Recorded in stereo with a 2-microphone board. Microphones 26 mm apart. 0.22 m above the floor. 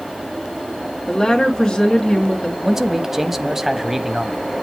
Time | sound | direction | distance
1.1 | a woman speaking | 20° left (ahead or behind) | 2 m
2.6 | a man speaking | 15° right (ahead or behind) | 0.9 m